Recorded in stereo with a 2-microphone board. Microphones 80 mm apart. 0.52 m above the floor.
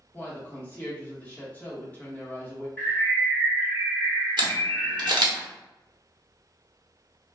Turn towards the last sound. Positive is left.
turn(degrees=-65)  # may be behind; listen again after turning